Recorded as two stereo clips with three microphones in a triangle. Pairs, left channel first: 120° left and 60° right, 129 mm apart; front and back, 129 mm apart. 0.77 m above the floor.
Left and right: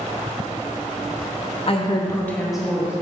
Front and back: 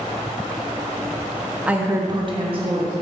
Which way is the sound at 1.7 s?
105° left.